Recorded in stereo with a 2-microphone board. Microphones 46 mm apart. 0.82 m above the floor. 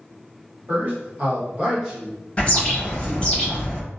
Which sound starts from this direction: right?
A man speaking, at 0.7 s.